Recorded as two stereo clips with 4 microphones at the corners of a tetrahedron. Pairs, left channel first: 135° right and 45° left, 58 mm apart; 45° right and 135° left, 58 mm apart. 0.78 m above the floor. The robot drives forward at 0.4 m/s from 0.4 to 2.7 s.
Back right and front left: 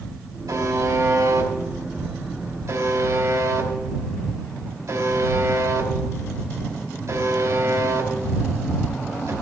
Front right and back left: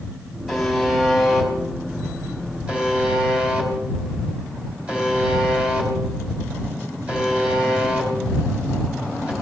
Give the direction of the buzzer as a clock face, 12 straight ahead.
10 o'clock.